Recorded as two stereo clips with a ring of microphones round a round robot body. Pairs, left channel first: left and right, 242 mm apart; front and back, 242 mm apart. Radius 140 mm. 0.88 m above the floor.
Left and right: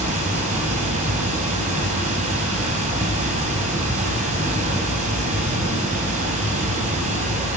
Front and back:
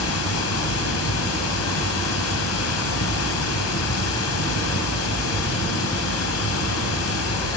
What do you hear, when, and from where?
0.0 s running water: 25° right, 2.5 m